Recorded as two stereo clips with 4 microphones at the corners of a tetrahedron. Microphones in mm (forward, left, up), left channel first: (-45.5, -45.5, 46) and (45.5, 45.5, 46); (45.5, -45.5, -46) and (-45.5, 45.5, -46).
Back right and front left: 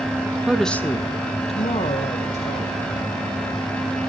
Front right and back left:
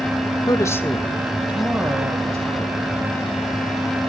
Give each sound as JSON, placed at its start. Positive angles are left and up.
{"t": 0.5, "sound": "a woman speaking", "azimuth_deg": -30, "distance_m": 1.2}